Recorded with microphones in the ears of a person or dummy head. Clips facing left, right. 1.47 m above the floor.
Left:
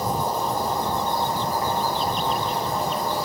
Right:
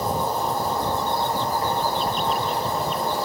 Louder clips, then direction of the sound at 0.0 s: Even; 15° left (ahead or behind).